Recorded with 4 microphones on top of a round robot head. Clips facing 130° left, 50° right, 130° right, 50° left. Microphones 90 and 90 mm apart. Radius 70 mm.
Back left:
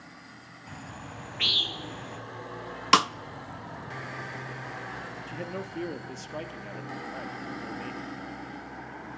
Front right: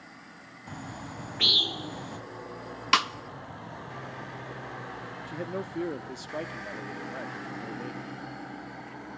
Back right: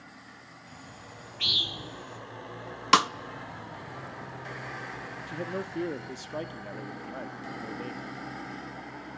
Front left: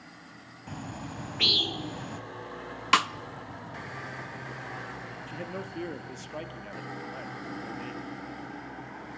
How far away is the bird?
About 0.6 m.